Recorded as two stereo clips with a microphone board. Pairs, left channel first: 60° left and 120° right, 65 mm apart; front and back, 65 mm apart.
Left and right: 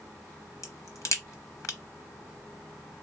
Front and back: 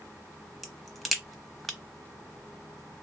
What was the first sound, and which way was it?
A crack, 90° left.